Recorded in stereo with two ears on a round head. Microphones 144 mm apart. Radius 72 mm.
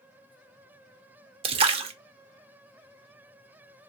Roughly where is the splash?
Right.